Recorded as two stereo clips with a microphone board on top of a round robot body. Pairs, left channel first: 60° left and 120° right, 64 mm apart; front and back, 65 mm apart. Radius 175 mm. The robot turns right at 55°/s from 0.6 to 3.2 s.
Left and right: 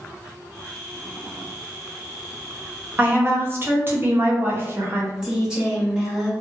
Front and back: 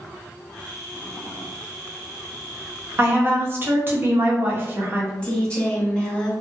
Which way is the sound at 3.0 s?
160° right.